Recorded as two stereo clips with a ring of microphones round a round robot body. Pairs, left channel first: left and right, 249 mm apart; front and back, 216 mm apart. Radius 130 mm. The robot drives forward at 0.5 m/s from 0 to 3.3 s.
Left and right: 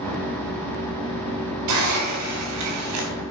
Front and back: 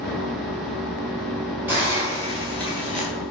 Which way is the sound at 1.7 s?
100° right.